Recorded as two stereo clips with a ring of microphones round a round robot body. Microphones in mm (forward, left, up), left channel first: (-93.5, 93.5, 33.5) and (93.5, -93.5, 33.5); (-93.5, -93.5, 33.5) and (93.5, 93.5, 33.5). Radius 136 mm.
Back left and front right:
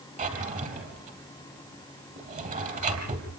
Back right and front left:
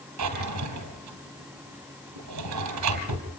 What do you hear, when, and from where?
0.2 s a drawer: 20° left, 3 m